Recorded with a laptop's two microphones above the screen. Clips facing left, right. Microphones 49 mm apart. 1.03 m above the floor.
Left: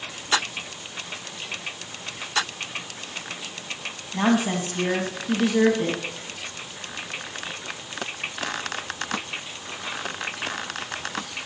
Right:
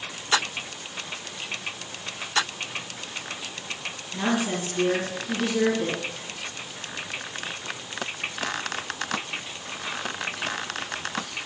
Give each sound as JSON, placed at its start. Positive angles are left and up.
{"t": 4.1, "sound": "a woman speaking", "side_deg": 55, "distance_m": 1.5}